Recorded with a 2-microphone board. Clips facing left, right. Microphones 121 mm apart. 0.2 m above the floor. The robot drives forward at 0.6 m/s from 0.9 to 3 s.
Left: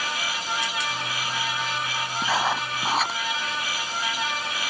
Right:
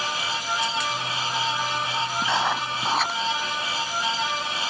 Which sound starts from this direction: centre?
Writing, at 2.2 s.